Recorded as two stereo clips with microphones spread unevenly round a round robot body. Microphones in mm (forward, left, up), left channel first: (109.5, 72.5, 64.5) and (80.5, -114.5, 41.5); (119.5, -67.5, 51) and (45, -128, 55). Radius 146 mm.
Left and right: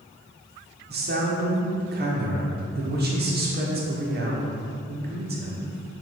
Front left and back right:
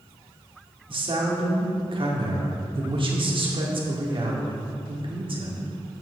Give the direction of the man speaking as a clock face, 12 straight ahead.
4 o'clock.